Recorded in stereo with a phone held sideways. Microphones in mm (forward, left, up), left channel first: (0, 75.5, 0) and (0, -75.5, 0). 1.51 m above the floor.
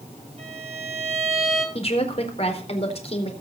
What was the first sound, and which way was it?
A violin, 45° right (ahead or behind).